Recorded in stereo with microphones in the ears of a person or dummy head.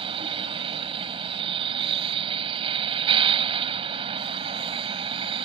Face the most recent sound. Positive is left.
turn(degrees=-25)  # may be behind; listen again after turning